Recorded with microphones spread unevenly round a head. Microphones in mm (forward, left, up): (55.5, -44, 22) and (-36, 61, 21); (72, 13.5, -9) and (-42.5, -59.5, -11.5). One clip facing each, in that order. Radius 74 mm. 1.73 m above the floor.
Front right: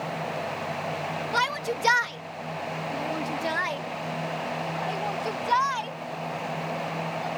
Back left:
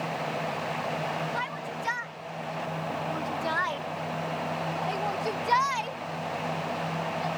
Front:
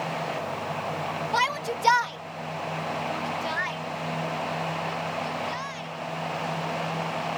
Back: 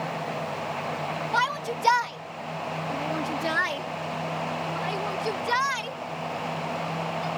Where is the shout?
40° right; by 7.3 s 155° right.